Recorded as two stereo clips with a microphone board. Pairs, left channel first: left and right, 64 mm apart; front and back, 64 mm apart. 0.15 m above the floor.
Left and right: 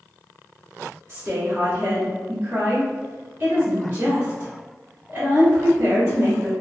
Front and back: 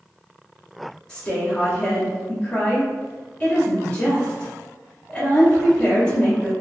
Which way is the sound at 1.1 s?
55° right.